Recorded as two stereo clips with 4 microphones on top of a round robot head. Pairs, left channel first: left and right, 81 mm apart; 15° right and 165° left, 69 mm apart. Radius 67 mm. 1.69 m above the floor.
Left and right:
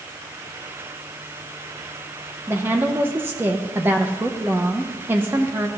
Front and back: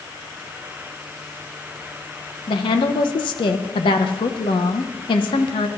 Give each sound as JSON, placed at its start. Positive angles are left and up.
{"t": 2.5, "sound": "a woman speaking", "azimuth_deg": -20, "distance_m": 1.2}